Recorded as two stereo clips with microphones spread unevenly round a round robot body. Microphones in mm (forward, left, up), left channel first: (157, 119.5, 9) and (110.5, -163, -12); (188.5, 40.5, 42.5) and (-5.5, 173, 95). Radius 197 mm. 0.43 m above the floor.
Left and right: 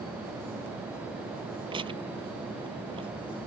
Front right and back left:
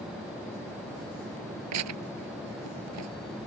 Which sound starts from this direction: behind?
Tearing paper, at 1.7 s.